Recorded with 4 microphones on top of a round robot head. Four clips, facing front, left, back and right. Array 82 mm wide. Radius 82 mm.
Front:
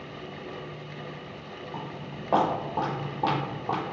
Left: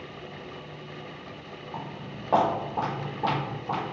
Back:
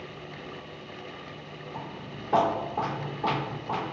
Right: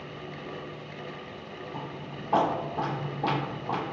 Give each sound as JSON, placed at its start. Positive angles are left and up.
{"t": 1.7, "sound": "footsteps", "azimuth_deg": 45, "distance_m": 1.7}